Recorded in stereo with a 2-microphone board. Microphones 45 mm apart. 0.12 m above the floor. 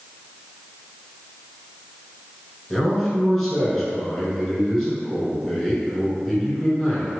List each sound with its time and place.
2.7 s a man speaking: 5° left (ahead or behind), 1.2 m